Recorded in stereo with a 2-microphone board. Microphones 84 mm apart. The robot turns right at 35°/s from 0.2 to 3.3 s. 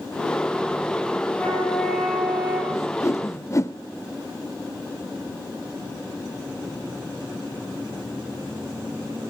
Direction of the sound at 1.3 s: 160° left.